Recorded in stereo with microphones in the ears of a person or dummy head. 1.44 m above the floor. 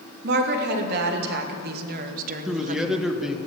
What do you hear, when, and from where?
0.2 s a woman speaking: 65° right (ahead or behind), 3 m; by 3.0 s 35° right (ahead or behind), 1.1 m
2.5 s a man speaking: centre (ahead or behind), 1.7 m